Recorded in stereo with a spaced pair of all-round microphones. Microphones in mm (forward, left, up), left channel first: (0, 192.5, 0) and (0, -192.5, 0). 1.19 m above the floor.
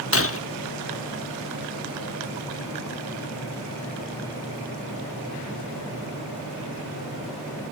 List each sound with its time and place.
0.1 s breaking glass: 35° left (ahead or behind), 0.8 m